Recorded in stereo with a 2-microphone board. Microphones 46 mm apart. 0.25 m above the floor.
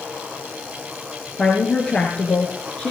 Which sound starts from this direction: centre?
A woman speaking, at 1.4 s.